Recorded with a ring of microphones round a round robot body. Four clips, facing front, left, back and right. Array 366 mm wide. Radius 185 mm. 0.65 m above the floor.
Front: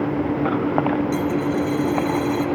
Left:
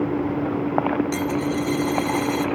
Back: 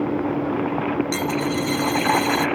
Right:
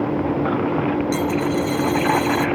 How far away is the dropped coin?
About 1.3 m.